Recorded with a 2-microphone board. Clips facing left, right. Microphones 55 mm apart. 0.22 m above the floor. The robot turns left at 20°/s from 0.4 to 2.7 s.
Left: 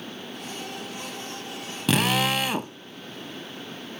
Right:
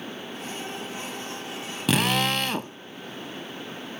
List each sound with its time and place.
1.9 s a drill: centre (ahead or behind), 0.8 m; by 2.7 s 10° left (ahead or behind), 0.8 m